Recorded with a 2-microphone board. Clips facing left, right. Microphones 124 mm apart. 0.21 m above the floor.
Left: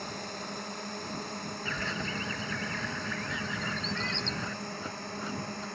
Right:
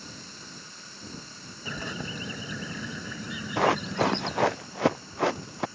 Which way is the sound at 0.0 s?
60° left (ahead or behind).